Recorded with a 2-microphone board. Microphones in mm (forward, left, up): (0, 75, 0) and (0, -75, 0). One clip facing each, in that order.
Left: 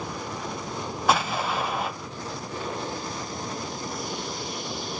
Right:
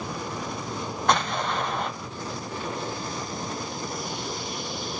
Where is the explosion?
5° left (ahead or behind), 0.6 m.